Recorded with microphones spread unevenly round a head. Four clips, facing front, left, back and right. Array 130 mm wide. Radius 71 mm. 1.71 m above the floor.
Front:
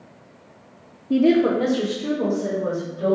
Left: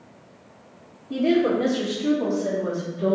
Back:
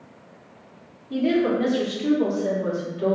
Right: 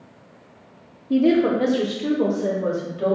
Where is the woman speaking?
20° right, 0.9 m; by 3.1 s 85° right, 3.5 m.